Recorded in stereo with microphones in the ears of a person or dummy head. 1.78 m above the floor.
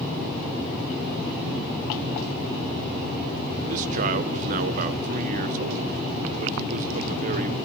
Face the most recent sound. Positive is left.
turn(degrees=-55)  # may be behind; listen again after turning